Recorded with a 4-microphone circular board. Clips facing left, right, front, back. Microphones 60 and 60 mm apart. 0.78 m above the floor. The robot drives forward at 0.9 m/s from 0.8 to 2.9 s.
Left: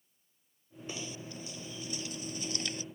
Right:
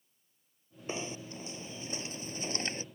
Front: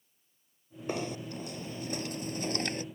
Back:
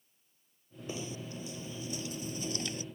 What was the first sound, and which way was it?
Knocking, 30° right.